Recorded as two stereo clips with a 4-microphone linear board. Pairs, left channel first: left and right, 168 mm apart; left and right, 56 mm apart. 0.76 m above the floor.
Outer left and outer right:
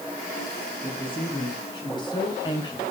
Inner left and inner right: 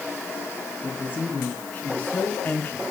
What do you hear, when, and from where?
0.8 s a woman speaking: 30° left (ahead or behind), 6.5 m; by 2.8 s 25° left (ahead or behind), 4.5 m